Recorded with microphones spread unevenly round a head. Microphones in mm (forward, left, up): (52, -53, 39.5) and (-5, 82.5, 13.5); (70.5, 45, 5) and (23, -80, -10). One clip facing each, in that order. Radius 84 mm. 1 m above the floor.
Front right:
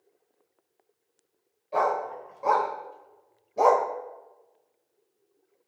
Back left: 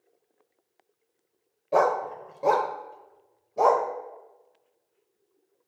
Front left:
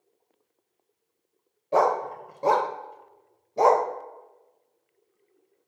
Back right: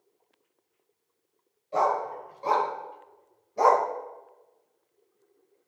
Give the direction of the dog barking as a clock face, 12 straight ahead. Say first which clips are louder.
Back left 3 dB, front left 3 dB; 9 o'clock.